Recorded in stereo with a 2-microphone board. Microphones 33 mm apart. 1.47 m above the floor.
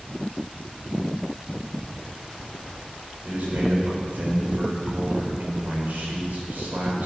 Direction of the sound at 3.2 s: 60° right (ahead or behind).